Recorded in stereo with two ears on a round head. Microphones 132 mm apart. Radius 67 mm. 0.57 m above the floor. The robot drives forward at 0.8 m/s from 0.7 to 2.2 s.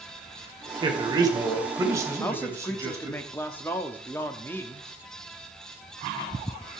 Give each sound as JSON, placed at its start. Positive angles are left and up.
{"t": 0.8, "sound": "a man speaking", "side_deg": -35, "distance_m": 1.8}
{"t": 2.2, "sound": "a man speaking", "side_deg": 15, "distance_m": 0.9}